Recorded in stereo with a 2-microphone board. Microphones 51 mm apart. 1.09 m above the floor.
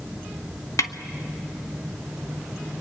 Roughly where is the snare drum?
Left.